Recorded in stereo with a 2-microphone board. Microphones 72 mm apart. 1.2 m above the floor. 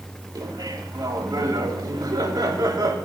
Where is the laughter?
75° right (ahead or behind), 3.5 m.